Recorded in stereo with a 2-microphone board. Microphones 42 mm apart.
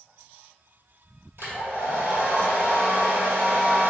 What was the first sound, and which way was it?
A hair dryer, 70° right (ahead or behind).